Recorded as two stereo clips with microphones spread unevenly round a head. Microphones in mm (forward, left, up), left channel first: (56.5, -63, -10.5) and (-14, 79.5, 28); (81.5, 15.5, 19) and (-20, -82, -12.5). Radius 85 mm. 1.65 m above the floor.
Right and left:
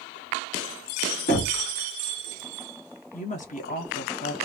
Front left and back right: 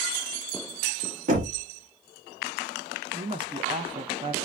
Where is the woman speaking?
90° right, 0.6 m.